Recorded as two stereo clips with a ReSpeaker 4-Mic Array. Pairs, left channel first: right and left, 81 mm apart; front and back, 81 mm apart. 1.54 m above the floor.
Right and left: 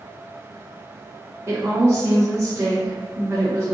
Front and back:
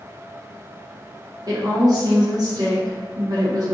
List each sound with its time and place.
1.5 s a woman speaking: 145° left, 1.1 m